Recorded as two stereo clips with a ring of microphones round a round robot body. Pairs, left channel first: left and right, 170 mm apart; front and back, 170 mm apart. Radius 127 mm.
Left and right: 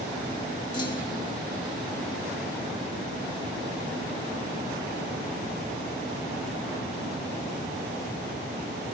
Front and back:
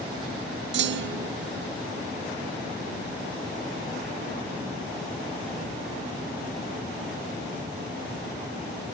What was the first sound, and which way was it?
A clunk, 165° left.